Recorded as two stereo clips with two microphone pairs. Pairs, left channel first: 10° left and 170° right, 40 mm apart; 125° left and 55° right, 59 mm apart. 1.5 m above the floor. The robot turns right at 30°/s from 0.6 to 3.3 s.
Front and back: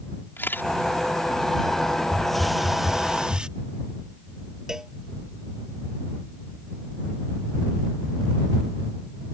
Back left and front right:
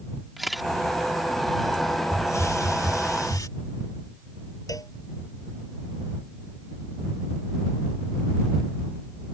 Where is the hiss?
90° left; by 3.5 s 125° left.